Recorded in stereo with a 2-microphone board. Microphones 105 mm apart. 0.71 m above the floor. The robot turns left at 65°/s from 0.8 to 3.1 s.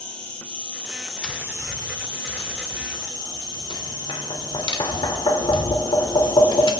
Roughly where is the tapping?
Centre.